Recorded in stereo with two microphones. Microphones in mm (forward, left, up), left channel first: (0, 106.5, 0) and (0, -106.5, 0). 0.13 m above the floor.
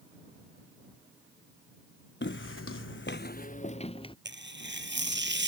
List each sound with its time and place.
2.2 s footsteps: 60° left (ahead or behind); by 4.2 s 25° left (ahead or behind)
4.2 s tearing paper: 60° right (ahead or behind)